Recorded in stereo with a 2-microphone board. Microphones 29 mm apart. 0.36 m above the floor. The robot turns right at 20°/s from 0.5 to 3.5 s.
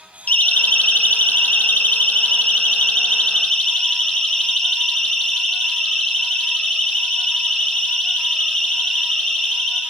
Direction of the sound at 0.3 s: 65° left (ahead or behind).